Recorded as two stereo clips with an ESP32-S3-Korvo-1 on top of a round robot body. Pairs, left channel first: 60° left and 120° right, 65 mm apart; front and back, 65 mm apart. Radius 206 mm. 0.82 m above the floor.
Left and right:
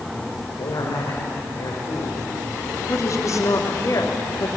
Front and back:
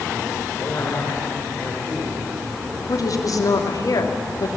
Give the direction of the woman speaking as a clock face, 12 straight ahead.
11 o'clock.